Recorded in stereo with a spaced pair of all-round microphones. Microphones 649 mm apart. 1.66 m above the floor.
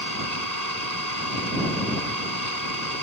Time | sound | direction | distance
0.0 | an engine running | 75° right (ahead or behind) | ?